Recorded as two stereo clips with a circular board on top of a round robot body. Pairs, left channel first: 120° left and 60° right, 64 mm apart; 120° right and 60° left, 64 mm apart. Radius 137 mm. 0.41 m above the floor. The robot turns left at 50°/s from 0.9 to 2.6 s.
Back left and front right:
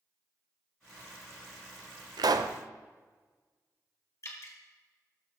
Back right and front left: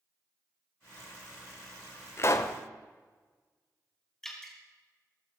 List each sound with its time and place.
2.2 s a pop: 65° right, 0.7 m; by 2.6 s 85° right, 0.7 m
4.2 s dripping: 160° left, 3 m